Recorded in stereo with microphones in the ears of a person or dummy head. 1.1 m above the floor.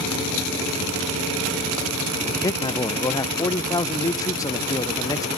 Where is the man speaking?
15° left (ahead or behind), 0.7 m.